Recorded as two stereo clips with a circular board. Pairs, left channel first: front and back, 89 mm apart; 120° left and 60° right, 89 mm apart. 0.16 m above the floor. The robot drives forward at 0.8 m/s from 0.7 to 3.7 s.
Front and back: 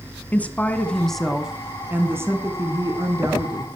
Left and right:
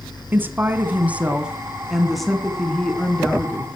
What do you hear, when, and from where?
0.3 s a woman speaking: 45° right, 1.6 m; by 3.8 s 170° right, 2.5 m